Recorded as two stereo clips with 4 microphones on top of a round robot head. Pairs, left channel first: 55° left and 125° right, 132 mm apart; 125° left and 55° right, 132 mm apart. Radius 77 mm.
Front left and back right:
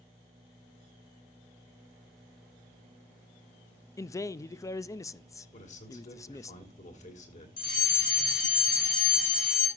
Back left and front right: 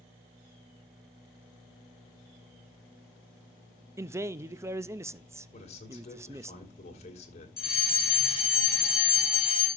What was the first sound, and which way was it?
A man speaking, straight ahead.